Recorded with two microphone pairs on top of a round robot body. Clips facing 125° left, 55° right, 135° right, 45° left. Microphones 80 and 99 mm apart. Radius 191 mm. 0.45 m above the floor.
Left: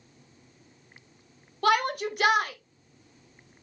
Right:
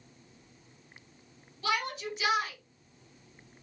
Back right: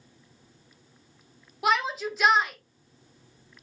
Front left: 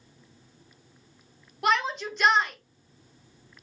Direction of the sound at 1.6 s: 135° left.